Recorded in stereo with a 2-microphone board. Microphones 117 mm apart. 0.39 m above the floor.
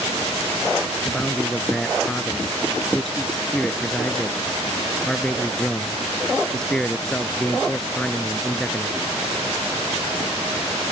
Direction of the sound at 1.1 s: 5° left (ahead or behind).